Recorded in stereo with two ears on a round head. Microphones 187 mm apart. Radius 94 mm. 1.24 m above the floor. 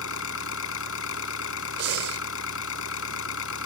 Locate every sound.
0.0 s an engine running: 75° left (ahead or behind)
1.8 s breathing: 60° right (ahead or behind)